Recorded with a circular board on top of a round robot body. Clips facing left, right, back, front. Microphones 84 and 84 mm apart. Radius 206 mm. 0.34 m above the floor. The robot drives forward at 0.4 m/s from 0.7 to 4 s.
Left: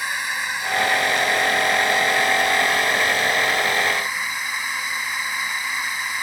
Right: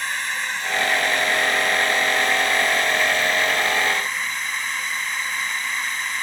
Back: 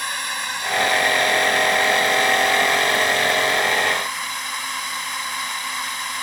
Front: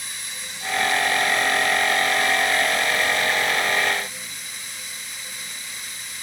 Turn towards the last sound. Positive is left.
turn(degrees=170)